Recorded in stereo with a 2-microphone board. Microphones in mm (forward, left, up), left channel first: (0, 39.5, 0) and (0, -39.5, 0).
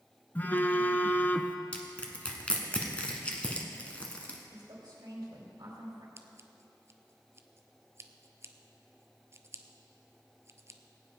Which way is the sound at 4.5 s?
70° right (ahead or behind).